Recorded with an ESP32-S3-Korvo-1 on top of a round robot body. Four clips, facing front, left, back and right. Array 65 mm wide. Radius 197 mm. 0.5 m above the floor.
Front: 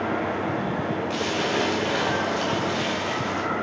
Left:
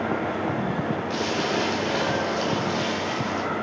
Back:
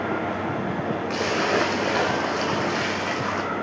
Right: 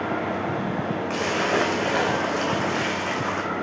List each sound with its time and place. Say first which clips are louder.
1.1 s a splash: right 4 dB, back 5 dB; 140° right, 2.5 m